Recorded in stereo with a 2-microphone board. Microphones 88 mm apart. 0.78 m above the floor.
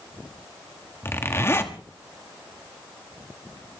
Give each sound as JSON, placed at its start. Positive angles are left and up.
{"t": 1.0, "sound": "a zipper", "side_deg": 30, "distance_m": 1.6}